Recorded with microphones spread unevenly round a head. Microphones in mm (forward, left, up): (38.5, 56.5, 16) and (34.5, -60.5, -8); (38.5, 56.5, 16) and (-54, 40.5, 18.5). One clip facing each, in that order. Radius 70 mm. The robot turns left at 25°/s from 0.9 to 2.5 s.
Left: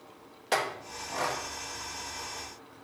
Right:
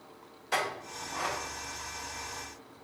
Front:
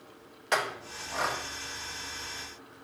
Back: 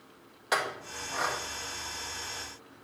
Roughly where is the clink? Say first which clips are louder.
Left 2 dB, front 1 dB; left.